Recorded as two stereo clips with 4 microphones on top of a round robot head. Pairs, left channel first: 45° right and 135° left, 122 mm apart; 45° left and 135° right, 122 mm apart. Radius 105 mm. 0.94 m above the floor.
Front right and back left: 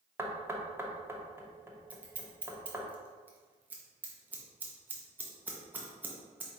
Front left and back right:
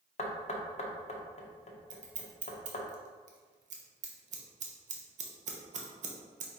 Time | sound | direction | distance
0.2 | knocking | 65° left | 0.8 m
1.9 | scissors | 150° right | 0.9 m